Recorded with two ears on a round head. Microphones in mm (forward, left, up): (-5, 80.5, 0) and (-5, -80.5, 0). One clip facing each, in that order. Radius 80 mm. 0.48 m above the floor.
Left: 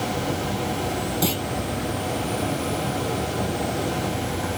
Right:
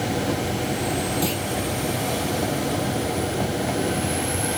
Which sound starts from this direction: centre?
A clunk, at 1.2 s.